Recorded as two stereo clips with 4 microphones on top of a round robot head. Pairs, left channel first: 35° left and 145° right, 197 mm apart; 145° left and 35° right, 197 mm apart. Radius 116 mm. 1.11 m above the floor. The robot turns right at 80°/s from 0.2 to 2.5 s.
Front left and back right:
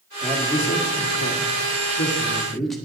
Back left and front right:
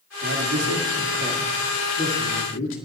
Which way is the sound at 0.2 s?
60° right.